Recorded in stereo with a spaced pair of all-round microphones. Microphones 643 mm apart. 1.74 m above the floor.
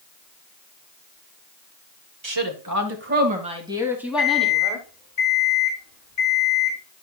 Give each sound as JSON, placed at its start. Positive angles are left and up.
{"t": 2.2, "sound": "a woman speaking", "side_deg": -45, "distance_m": 1.5}
{"t": 4.2, "sound": "an alarm clock", "side_deg": 70, "distance_m": 3.5}